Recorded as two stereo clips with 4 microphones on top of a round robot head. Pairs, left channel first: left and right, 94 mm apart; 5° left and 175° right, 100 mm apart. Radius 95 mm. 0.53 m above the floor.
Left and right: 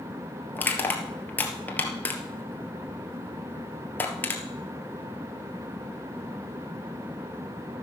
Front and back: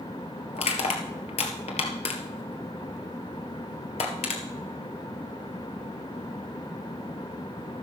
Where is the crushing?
20° left, 2 m.